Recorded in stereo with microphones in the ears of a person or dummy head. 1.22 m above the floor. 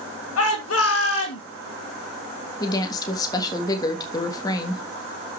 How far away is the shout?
About 2.5 m.